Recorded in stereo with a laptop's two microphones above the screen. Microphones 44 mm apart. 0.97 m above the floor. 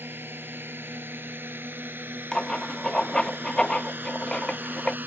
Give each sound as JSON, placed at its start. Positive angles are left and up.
{"t": 0.0, "sound": "a drone", "side_deg": -55}
{"t": 2.3, "sound": "writing", "side_deg": 15}